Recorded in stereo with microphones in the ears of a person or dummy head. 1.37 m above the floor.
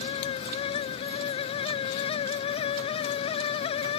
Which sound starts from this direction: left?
A fan, at 0.0 s.